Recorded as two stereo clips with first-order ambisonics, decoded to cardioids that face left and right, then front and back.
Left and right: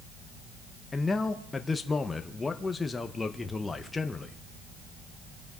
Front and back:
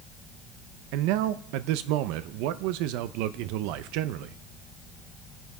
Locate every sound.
0.9 s a man speaking: 170° left, 0.7 m